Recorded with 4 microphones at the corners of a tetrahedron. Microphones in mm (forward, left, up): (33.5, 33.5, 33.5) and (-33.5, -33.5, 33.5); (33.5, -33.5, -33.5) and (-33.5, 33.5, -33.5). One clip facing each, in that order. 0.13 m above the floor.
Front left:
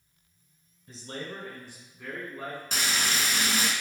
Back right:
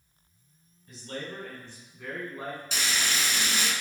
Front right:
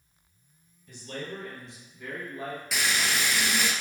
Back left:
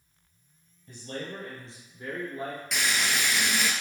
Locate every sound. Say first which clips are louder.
0.9 s a man speaking: even, back left 1 dB; 85° left, 1.5 m; by 2.6 s 170° left, 1.3 m
2.7 s frying: front left 2 dB, front right 1 dB; 45° left, 0.7 m